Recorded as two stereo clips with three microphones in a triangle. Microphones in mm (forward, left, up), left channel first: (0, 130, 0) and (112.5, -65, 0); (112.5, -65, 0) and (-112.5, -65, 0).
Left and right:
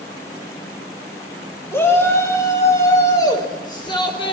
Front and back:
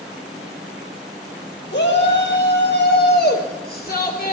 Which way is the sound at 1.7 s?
40° left.